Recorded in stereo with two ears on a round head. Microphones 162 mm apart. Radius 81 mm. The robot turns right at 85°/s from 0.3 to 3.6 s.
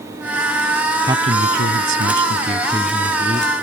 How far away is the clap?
I don't hear a clap.